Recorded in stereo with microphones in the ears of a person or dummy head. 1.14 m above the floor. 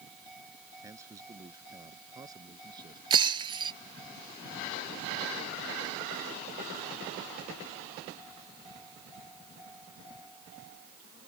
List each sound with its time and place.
0.8 s a man speaking: 10° right (ahead or behind); by 3.0 s 20° right (ahead or behind)
3.1 s breaking glass: 25° right (ahead or behind)